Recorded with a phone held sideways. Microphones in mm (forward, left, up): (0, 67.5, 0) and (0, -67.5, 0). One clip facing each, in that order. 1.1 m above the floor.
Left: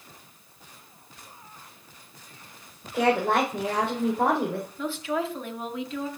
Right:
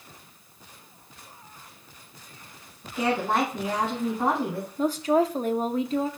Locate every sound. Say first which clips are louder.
2.9 s a woman speaking: left 2 dB; 75° left (ahead or behind), 3.5 m
4.8 s a woman speaking: right 8 dB; 40° right (ahead or behind), 0.8 m